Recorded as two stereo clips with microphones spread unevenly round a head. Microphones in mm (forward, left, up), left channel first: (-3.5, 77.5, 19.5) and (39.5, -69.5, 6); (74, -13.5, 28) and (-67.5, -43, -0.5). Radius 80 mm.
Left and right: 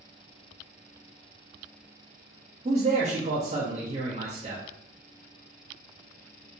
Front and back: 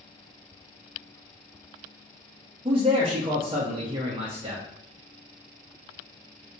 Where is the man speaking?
115° right, 0.6 m.